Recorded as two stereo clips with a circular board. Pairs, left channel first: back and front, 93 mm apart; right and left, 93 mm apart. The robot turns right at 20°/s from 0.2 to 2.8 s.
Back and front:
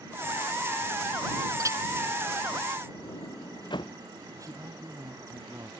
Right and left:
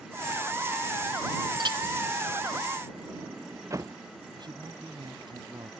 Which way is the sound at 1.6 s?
55° left.